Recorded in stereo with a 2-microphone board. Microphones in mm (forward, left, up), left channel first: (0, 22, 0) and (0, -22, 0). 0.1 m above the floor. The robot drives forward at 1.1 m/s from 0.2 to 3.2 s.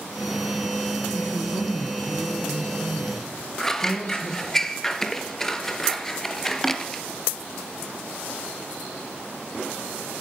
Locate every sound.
1.1 s a woman speaking: 55° left (ahead or behind), 3.5 m; by 4.6 s 40° left (ahead or behind), 4.5 m
3.6 s scissors: 10° left (ahead or behind), 1.3 m